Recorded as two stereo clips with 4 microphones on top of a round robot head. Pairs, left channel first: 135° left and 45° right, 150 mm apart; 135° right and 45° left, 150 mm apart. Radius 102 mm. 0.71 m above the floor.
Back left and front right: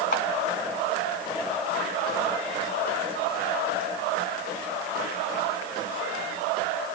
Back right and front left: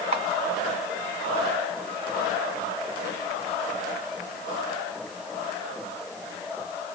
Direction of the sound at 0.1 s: 95° left.